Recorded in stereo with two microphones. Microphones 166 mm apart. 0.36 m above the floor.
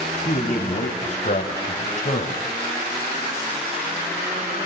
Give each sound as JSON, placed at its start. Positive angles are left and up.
{"t": 0.2, "sound": "a man speaking", "side_deg": 40, "distance_m": 3.0}